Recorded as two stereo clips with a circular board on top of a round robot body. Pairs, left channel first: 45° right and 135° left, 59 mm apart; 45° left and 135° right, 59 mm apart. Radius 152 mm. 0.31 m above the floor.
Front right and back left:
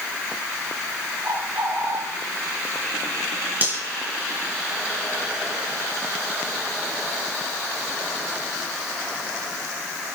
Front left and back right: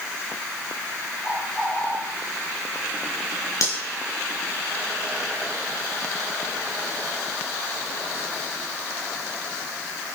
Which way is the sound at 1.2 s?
105° left.